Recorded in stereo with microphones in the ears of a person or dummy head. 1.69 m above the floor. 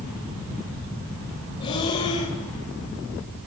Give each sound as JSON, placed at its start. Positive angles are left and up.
{"t": 1.6, "sound": "breathing", "side_deg": 25, "distance_m": 2.0}